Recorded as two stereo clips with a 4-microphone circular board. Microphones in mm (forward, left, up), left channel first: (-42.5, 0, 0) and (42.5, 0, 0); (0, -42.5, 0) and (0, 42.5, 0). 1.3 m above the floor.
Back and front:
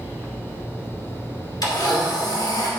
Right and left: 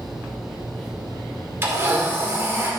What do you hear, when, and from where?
1.6 s a blender: 150° left, 2 m